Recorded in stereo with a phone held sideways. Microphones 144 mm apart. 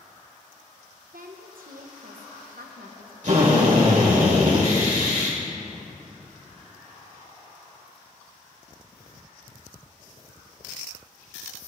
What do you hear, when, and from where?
1.1 s a woman speaking: 80° right, 0.9 m
3.2 s a drill: 60° right (ahead or behind), 2.5 m